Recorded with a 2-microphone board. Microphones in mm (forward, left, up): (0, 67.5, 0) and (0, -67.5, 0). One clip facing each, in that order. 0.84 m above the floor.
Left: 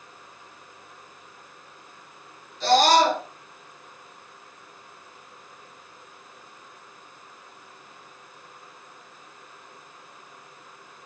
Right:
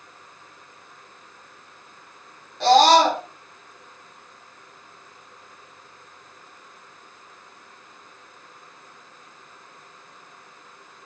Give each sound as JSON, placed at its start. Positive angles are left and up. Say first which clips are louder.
{"t": 2.6, "sound": "a scream", "louder": "right 4 dB", "side_deg": -70, "distance_m": 5.5}